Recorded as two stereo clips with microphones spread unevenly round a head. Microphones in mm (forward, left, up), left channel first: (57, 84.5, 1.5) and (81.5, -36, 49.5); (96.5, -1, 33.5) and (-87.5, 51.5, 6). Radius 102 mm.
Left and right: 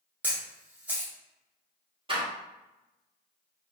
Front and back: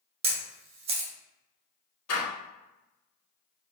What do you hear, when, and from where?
0.2 s a camera shutter: 135° right, 0.6 m
2.1 s a door slam: 25° right, 1.2 m